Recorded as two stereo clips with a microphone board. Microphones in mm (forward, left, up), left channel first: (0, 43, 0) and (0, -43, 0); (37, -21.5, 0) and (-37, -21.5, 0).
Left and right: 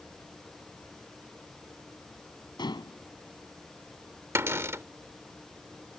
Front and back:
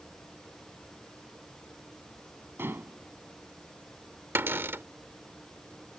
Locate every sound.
2.6 s dishes clattering: 120° left
4.3 s a cupboard door: 135° right